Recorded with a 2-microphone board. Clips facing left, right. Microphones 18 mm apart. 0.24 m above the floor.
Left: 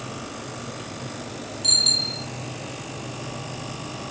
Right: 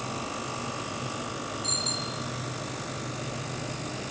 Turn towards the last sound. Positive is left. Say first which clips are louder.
# left 12 dB
turn(degrees=35)  # may be behind; listen again after turning